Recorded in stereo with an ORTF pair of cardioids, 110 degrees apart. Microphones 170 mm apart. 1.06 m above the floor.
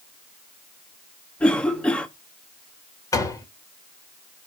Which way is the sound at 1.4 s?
5° left.